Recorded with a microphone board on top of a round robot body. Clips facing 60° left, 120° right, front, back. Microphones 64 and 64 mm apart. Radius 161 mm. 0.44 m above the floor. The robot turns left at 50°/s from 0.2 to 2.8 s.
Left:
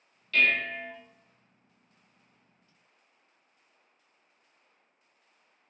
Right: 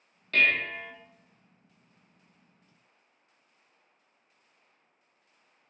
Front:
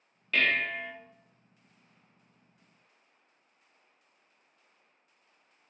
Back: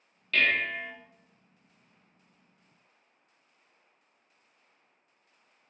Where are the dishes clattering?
75° right, 0.7 m; by 0.9 s 105° right, 0.7 m.